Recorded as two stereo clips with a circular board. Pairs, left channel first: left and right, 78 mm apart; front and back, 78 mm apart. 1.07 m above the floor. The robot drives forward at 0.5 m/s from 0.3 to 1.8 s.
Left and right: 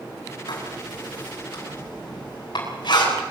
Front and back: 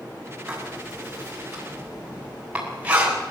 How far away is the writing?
About 7 m.